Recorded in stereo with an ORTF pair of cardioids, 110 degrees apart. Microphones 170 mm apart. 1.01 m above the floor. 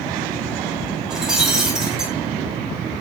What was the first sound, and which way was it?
Breaking glass, 5° right.